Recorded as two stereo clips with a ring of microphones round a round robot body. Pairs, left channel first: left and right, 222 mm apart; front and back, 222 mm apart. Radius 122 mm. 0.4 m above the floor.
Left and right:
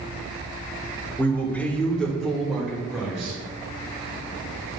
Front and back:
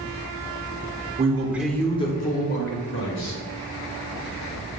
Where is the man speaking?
165° left, 1.1 m; by 3.4 s 5° right, 2 m.